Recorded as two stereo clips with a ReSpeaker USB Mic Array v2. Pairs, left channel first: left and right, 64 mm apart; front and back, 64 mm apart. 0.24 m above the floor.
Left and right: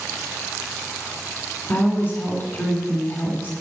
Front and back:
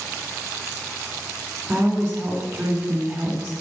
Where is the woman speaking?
110° left, 2.0 m.